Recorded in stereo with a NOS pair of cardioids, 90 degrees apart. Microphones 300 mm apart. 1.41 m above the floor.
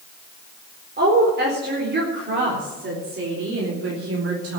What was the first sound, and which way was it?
A woman speaking, 35° right.